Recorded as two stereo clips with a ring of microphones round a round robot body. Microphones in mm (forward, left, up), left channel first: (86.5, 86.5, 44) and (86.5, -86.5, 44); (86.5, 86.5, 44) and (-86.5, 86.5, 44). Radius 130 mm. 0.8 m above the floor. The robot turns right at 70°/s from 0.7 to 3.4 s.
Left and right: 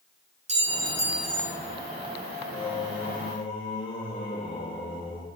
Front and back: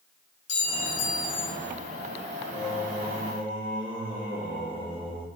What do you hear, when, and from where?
0.5 s a clink: 40° right, 1.4 m; by 1.5 s 20° left, 1.4 m
2.5 s singing: 80° left, 3 m; by 5.3 s 140° left, 3 m